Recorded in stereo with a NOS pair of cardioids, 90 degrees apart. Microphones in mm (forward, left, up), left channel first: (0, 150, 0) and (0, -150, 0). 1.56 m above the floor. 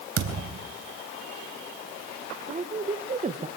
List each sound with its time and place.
0.2 s a thud: 50° right, 4 m
2.5 s a woman speaking: 25° right, 1.5 m